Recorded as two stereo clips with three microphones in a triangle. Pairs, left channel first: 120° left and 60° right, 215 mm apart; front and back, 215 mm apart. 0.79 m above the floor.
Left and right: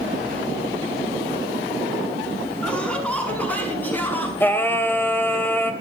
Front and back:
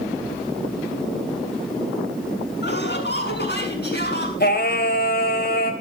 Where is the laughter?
35° left, 7 m; by 4.3 s 40° left, 8 m.